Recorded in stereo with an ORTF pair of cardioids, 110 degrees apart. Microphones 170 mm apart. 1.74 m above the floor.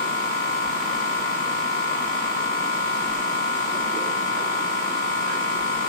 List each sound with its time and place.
0.0 s a machine running: 45° left, 1.4 m